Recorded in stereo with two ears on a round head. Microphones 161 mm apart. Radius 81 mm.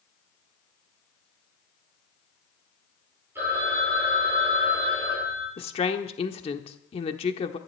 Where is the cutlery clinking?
I don't hear cutlery clinking.